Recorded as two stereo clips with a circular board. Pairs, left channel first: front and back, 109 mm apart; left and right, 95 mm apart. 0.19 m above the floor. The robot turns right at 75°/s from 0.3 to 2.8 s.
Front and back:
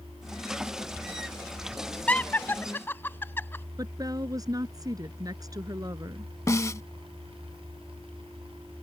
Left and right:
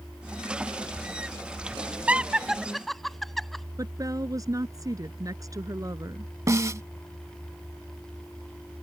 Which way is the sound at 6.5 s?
50° right.